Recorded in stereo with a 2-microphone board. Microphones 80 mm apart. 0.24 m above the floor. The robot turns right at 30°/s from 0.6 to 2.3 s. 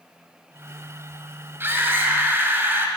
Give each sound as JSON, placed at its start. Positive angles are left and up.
{"t": 1.6, "sound": "a scream", "side_deg": -30, "distance_m": 1.6}